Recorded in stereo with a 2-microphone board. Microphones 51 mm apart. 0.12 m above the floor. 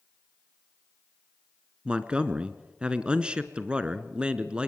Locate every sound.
1.9 s a man speaking: 20° right (ahead or behind), 1.3 m